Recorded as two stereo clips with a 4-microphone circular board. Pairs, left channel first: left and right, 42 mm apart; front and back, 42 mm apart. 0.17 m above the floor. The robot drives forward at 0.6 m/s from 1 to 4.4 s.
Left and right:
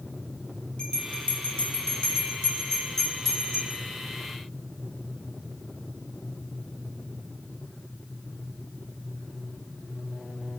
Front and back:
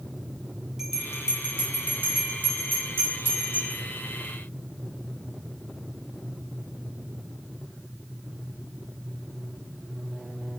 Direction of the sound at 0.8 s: 120° left.